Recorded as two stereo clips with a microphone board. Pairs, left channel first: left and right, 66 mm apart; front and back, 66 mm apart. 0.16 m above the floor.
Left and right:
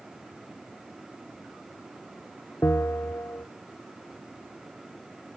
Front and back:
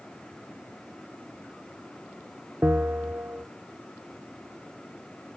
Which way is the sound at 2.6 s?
125° left.